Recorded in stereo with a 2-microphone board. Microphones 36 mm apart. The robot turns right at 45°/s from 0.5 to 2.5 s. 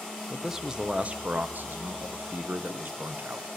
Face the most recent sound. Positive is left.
turn(degrees=-80)